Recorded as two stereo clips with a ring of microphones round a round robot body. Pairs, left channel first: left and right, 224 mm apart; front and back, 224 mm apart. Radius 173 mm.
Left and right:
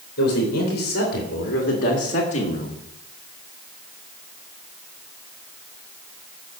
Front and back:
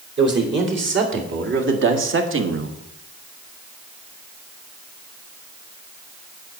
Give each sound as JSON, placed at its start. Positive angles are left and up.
{"t": 0.2, "sound": "a man speaking", "azimuth_deg": 145, "distance_m": 3.5}